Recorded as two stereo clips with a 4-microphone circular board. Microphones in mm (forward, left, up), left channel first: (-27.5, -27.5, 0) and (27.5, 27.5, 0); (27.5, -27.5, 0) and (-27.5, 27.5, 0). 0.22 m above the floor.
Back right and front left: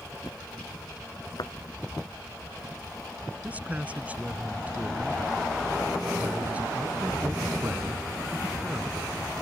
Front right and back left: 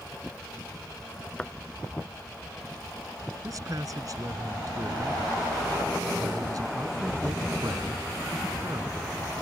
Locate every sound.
1.4 s a thud: 120° right
3.4 s a man speaking: 110° left